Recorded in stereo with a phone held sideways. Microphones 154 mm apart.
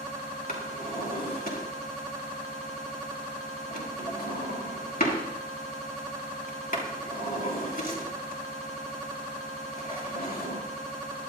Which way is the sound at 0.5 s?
70° left (ahead or behind).